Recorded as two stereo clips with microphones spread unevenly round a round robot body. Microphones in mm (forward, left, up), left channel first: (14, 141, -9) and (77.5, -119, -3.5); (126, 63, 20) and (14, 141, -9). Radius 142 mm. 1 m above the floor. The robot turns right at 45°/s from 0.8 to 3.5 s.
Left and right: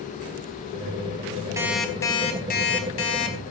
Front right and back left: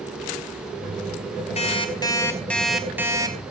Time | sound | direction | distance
1.6 | an alarm clock | 5° left | 4.5 m